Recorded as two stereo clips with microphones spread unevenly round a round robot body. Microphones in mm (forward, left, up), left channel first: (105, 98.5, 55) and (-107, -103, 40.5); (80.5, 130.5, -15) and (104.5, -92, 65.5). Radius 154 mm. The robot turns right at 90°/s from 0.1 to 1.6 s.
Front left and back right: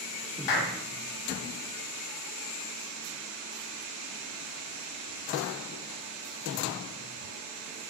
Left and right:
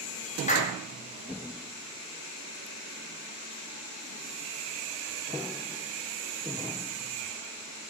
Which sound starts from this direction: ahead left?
A clap, at 0.5 s.